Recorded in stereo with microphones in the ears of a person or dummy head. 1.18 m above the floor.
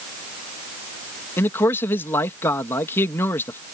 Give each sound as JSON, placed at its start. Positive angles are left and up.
{"t": 1.4, "sound": "a man speaking", "side_deg": 15}